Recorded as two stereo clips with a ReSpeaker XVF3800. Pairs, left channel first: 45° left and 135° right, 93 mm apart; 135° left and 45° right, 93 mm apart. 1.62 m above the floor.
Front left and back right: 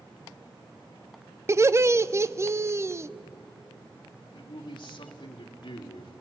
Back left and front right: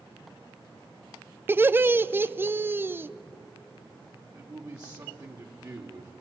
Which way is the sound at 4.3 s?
5° left.